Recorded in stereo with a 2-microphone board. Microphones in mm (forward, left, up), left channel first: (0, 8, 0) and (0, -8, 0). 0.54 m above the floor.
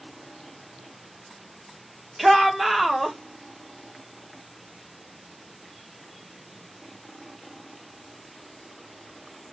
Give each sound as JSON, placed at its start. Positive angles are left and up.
{"t": 2.2, "sound": "a shout", "side_deg": -20, "distance_m": 1.3}